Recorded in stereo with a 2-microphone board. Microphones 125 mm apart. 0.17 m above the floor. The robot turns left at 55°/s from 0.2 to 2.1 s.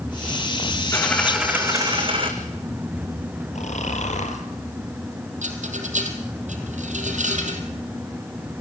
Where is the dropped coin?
20° left, 4 m; by 2.3 s 45° right, 4 m.